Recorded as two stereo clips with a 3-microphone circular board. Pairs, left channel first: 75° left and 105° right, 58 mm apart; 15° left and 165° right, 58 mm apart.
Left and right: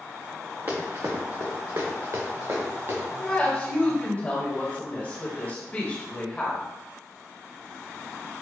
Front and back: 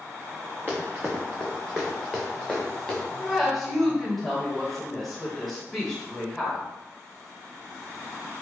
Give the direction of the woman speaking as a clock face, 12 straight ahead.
9 o'clock.